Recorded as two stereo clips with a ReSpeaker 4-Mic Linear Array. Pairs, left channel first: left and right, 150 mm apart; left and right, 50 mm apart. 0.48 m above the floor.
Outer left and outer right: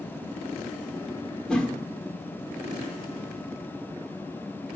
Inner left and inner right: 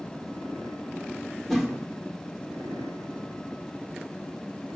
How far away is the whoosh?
About 1.1 m.